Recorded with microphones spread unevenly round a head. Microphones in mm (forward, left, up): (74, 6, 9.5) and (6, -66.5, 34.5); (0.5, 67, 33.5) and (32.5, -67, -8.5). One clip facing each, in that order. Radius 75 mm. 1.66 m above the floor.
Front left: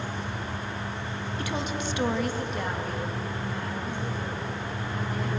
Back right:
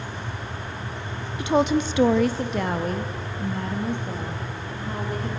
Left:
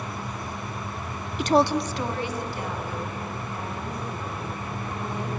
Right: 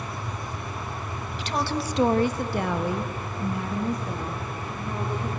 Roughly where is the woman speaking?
Behind left.